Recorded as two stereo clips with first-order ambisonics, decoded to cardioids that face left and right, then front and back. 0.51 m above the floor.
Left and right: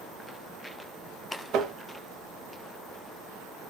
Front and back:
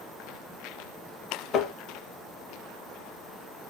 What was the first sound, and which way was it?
Tapping, 50° right.